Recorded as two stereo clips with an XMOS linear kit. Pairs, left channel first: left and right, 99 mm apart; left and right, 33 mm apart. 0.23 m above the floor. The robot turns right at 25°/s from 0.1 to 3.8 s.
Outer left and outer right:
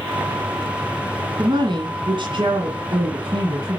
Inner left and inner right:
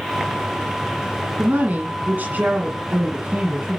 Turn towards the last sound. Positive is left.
turn(degrees=-60)